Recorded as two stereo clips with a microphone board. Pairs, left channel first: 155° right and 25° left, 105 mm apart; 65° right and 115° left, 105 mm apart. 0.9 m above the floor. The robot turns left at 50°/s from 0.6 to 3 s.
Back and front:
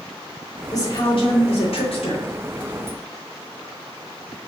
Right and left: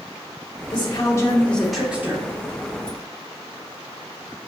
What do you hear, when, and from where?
0.7 s a woman speaking: 105° right, 3 m; by 2.3 s 175° left, 3 m